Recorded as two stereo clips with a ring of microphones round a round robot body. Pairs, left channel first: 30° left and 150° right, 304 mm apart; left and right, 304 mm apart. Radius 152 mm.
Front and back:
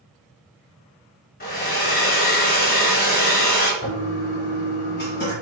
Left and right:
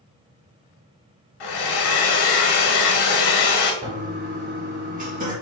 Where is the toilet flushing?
25° right, 1.2 m.